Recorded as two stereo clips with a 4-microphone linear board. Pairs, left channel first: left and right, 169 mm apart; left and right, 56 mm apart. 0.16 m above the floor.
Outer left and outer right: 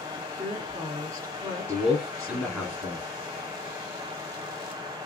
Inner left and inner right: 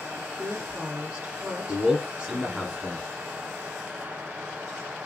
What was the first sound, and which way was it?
A woman speaking, 20° right (ahead or behind).